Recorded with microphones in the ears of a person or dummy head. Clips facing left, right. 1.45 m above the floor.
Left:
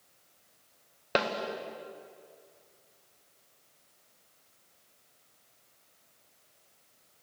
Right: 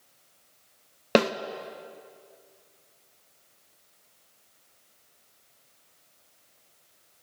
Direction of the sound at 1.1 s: 55° right (ahead or behind).